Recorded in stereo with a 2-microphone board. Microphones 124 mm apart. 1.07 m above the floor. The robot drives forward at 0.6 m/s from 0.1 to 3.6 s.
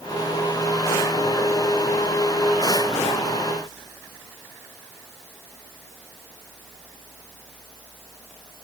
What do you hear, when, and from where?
Only background noise.